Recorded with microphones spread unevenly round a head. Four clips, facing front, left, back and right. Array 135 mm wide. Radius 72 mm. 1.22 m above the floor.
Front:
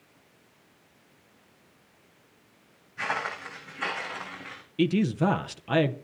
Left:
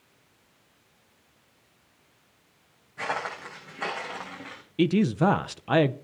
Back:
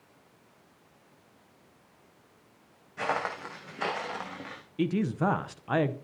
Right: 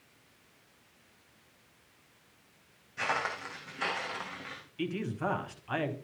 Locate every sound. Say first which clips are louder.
3.0 s footsteps: left 2 dB, back 1 dB; 170° left, 5 m; by 4.6 s 155° left, 5 m
4.8 s a man speaking: left 12 dB, front 4 dB; 75° left, 0.7 m